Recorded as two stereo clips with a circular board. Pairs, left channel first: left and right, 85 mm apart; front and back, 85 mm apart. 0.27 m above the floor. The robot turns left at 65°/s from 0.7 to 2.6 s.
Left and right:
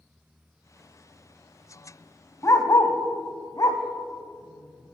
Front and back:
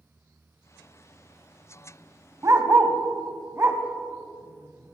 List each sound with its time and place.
2.4 s a dog barking: 140° left, 0.6 m; by 5.0 s 125° left, 0.6 m